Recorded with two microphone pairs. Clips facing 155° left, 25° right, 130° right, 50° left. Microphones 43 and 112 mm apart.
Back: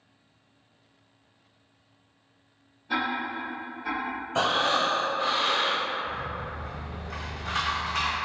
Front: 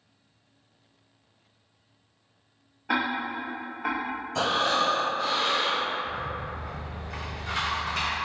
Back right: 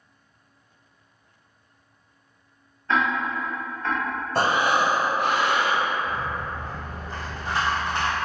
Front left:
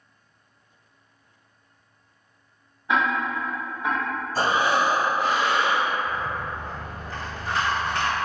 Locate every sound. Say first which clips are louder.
2.9 s ticking: front 1 dB, even; 30° right, 0.6 m
4.3 s breathing: back 1 dB, back right 1 dB; 150° right, 0.7 m
6.0 s a rattle: even, even; 165° left, 1.4 m